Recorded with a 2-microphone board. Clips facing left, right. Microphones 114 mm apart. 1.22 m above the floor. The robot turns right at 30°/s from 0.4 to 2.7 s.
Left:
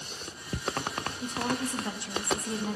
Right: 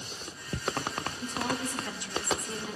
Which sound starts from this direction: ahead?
A woman speaking, at 1.2 s.